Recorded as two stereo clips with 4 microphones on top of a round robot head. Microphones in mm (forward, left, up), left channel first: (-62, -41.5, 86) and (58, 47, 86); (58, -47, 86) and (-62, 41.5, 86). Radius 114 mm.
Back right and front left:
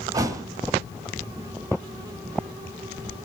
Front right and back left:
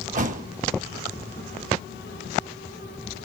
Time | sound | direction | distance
0.1 | a thud | 105° left | 1.2 m